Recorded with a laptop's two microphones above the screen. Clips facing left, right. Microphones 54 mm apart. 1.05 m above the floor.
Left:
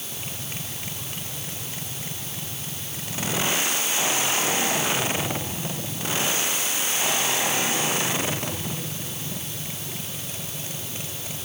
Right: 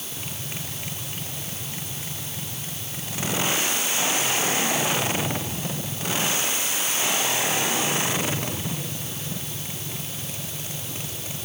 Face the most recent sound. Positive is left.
No sound to turn to.